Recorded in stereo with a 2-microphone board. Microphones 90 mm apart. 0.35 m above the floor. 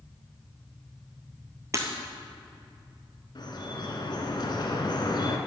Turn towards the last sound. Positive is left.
turn(degrees=60)  # may be behind; listen again after turning